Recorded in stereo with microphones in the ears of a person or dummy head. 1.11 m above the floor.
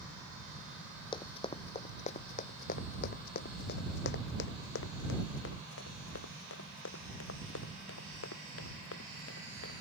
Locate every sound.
1.1 s running footsteps: 25° left (ahead or behind); by 9.7 s 80° left